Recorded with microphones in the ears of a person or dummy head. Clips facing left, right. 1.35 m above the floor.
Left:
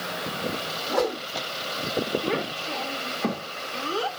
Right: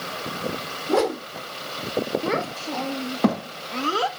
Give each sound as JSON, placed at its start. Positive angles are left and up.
{"t": 0.9, "sound": "a whoosh", "side_deg": -60, "distance_m": 1.8}
{"t": 2.2, "sound": "a child speaking", "side_deg": -70, "distance_m": 1.3}